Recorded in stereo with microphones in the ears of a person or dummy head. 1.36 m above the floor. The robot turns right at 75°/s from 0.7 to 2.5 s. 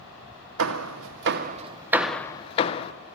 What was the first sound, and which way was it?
Hammering, 75° right (ahead or behind).